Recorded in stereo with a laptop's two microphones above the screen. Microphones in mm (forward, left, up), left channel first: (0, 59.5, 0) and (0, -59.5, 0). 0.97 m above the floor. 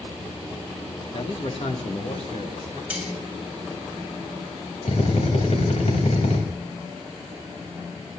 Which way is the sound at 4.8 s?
65° left (ahead or behind).